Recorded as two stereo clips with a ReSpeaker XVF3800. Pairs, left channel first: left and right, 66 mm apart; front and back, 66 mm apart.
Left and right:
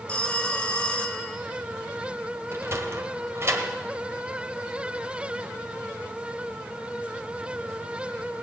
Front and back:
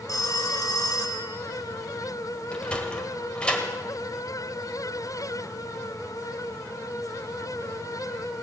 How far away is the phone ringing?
About 1.3 m.